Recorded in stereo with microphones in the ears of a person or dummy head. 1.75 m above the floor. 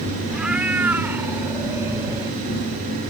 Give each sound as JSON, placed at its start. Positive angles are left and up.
{"t": 0.3, "sound": "a cat meowing", "side_deg": -5}